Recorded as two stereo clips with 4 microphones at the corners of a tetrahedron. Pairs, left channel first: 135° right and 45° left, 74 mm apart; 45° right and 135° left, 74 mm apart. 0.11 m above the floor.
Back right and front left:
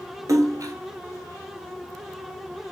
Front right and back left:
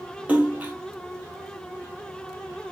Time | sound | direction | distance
0.3 | a splash | 70° left | 0.9 m